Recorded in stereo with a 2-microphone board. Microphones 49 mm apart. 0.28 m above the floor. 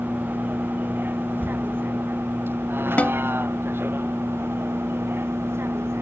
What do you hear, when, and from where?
0.0 s a vehicle: 40° right (ahead or behind); by 6.0 s 60° right (ahead or behind)
3.0 s a snare drum: 30° left (ahead or behind)